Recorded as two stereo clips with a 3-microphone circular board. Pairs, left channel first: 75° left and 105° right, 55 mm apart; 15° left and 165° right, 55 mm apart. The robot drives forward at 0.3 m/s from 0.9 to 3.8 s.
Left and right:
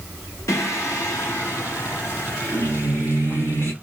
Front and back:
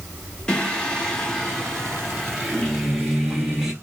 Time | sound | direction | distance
0.5 | singing | 90° left | 1.9 m